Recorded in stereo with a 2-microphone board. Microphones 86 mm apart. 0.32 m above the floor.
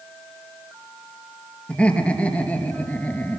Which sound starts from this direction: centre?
Laughter, at 1.7 s.